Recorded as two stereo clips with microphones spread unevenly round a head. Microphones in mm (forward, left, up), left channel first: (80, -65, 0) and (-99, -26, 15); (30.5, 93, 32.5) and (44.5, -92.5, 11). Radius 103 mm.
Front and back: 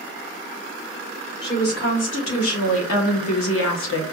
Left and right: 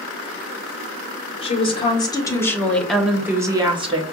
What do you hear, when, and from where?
1.4 s a woman speaking: 35° left, 1.5 m; by 4.1 s 30° right, 1.1 m